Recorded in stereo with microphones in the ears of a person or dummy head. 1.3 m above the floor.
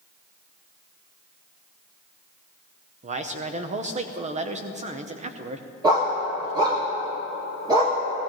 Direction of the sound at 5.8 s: 20° right (ahead or behind).